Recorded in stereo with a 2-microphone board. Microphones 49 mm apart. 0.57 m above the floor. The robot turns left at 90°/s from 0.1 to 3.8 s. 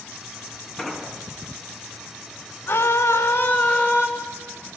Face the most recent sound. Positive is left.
turn(degrees=35)